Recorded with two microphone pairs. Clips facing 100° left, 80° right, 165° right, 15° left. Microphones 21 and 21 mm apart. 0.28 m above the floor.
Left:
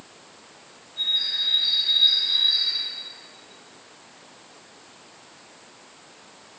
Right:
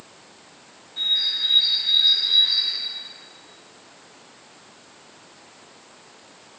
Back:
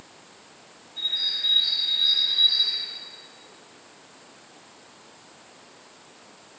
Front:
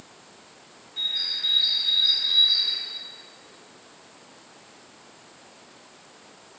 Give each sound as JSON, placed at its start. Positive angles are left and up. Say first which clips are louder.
{"t": 1.0, "sound": "a bird", "louder": "right 2 dB, back 1 dB", "azimuth_deg": -25, "distance_m": 0.7}